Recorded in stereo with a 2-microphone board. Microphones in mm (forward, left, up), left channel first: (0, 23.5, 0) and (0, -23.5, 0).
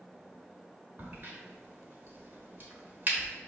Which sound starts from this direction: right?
A crack, at 1.0 s.